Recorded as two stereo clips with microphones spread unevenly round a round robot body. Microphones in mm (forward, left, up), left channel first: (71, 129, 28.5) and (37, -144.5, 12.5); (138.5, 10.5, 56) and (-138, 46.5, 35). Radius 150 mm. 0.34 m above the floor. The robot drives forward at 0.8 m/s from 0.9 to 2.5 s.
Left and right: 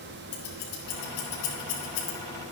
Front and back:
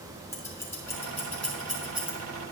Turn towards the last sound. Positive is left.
turn(degrees=95)